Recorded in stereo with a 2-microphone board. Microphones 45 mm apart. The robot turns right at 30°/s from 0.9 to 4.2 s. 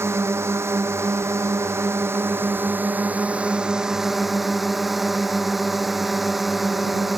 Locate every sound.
0.0 s a drone: 100° right; by 7.2 s straight ahead